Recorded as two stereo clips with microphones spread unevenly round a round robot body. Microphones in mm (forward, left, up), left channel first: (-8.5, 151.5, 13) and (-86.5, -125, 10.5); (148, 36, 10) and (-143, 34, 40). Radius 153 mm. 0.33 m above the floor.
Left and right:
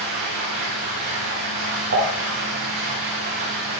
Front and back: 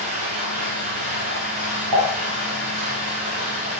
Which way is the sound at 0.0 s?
130° right.